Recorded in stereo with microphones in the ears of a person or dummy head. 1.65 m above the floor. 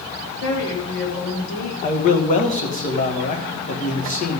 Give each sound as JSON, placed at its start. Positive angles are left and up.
{"t": 0.4, "sound": "a woman speaking", "side_deg": 70, "distance_m": 2.5}
{"t": 1.8, "sound": "a man speaking", "side_deg": 40, "distance_m": 2.0}